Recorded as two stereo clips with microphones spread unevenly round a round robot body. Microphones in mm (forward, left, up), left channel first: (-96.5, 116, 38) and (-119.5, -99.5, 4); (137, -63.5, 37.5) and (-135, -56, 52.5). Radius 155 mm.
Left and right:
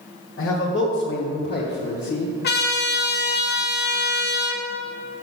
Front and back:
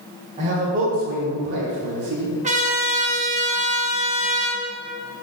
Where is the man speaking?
110° left, 2 m; by 2.3 s 145° left, 1.8 m.